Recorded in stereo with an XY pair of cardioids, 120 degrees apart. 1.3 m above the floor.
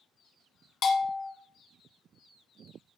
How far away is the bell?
About 1.0 m.